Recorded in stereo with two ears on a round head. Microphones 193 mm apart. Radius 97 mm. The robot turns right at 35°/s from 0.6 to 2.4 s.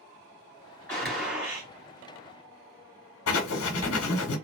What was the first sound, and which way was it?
A gunshot, 5° left (ahead or behind).